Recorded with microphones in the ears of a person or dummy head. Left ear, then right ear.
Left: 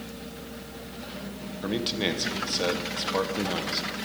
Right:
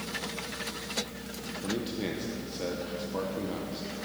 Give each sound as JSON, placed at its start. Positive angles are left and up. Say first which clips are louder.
{"t": 1.6, "sound": "a man speaking", "louder": "left 7 dB", "side_deg": 40, "distance_m": 1.2}